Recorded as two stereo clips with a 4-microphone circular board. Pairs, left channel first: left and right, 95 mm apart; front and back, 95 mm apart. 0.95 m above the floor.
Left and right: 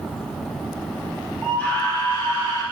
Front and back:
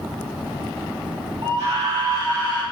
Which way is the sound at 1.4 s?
170° left.